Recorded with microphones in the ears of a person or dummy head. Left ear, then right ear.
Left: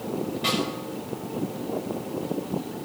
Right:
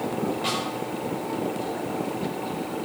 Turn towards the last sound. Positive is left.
turn(degrees=20)  # may be behind; listen again after turning